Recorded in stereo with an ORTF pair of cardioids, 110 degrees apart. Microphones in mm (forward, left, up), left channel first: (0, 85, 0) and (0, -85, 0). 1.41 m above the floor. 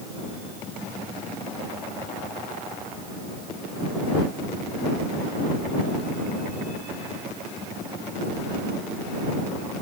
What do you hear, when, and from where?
Only background noise.